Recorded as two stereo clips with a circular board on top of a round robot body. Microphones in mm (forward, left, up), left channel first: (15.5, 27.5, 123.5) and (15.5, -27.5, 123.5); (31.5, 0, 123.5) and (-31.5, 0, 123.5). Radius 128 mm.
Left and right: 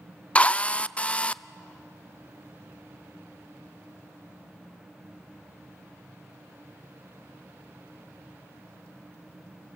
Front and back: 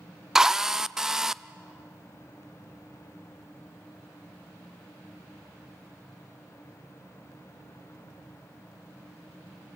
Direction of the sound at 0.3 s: 110° left.